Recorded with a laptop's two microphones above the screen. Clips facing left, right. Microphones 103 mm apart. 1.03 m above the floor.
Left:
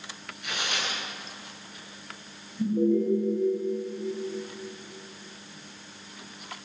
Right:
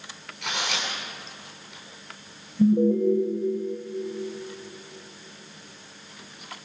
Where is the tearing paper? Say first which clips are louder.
Right 3 dB; 85° right, 7.5 m.